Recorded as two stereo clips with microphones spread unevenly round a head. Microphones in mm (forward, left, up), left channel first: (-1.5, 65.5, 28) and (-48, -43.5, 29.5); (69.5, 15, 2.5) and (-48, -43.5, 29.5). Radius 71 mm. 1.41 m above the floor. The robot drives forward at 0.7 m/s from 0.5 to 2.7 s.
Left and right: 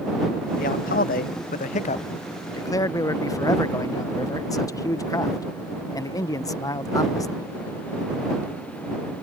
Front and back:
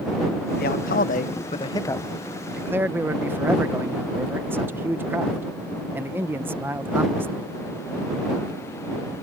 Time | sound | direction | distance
0.6 | a man speaking | 45° left | ?